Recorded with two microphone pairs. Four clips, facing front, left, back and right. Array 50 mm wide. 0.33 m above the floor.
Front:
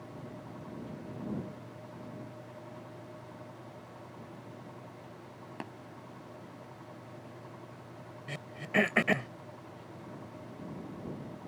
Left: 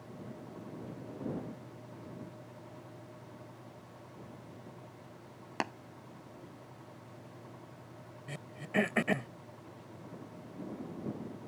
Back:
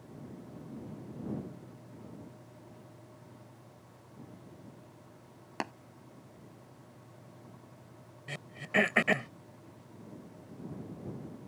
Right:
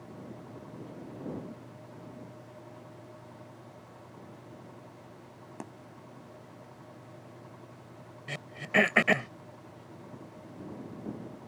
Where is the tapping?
115° left.